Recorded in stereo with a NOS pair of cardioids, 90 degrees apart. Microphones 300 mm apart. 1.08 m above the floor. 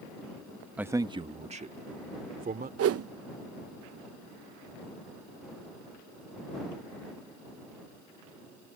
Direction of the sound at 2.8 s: 55° right.